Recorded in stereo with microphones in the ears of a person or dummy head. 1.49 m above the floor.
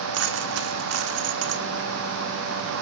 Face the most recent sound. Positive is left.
turn(degrees=-55)  # may be behind; listen again after turning